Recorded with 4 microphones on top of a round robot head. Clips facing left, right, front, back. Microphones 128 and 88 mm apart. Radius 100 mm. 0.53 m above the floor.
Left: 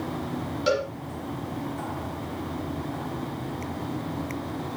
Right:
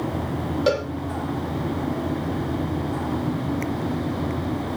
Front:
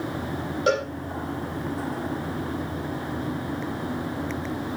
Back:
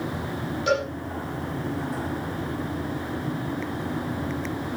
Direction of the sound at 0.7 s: 55° right.